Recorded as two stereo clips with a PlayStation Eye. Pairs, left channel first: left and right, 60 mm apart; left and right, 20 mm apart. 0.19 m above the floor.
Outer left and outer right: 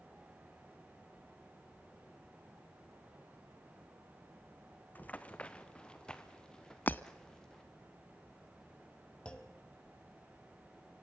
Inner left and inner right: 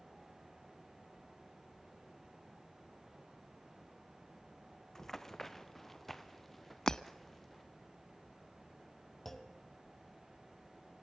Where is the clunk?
15° left (ahead or behind), 1.5 m.